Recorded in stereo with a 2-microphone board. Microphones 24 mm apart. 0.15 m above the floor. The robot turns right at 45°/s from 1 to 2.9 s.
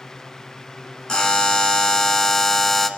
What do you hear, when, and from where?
1.1 s a buzzer: 80° left, 1.2 m; by 2.9 s 160° left, 1.2 m